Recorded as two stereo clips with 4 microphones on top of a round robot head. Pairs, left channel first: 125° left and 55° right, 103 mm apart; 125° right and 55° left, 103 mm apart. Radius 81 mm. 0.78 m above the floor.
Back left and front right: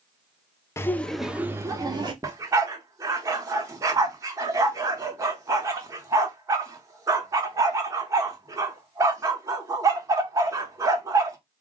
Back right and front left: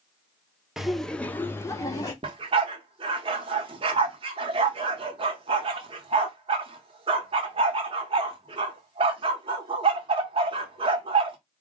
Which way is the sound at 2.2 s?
10° left.